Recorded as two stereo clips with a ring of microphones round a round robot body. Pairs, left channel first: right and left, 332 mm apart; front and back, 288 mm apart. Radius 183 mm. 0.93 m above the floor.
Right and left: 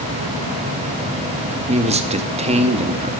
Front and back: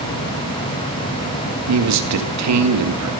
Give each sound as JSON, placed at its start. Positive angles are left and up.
{"t": 1.7, "sound": "a man speaking", "azimuth_deg": 160, "distance_m": 2.0}